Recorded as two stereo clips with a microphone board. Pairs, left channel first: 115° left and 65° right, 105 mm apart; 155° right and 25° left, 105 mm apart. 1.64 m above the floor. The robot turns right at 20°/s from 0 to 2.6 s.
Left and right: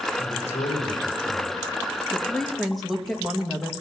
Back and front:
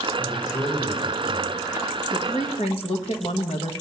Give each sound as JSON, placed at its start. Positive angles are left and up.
{"t": 0.2, "sound": "a man speaking", "azimuth_deg": 110, "distance_m": 4.5}
{"t": 2.1, "sound": "a woman speaking", "azimuth_deg": -165, "distance_m": 1.5}